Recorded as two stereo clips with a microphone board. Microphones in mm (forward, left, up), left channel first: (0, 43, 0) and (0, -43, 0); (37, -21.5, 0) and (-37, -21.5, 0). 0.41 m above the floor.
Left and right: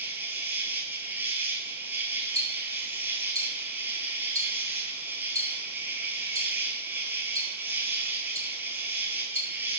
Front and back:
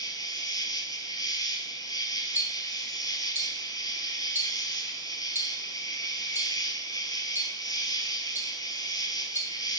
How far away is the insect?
About 0.9 m.